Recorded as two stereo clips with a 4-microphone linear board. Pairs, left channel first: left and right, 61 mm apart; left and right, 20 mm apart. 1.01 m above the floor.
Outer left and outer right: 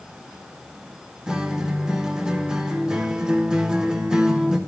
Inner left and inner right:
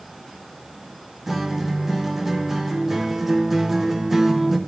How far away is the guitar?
About 0.7 m.